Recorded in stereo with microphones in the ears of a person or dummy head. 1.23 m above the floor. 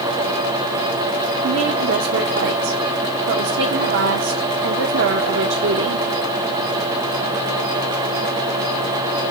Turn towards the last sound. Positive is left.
turn(degrees=-70)  # may be behind; listen again after turning